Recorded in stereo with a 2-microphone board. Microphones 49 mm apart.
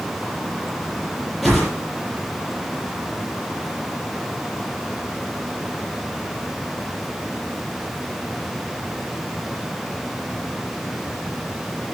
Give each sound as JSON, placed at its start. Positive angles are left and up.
{"t": 1.4, "sound": "a whoosh", "side_deg": -5, "distance_m": 7.0}